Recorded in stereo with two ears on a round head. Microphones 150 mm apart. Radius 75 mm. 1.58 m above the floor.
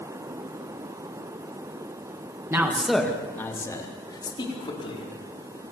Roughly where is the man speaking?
Centre.